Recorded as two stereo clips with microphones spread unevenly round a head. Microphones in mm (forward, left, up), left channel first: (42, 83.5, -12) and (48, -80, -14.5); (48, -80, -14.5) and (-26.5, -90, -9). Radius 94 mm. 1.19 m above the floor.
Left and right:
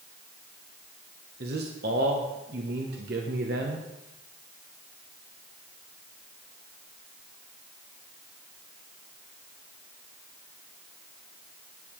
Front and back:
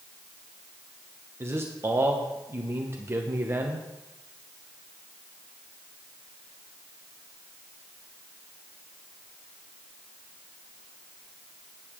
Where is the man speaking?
115° right, 1.1 m.